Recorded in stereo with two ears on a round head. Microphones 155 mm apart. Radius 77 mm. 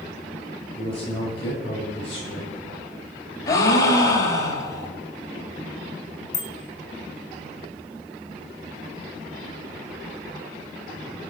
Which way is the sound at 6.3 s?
20° left (ahead or behind).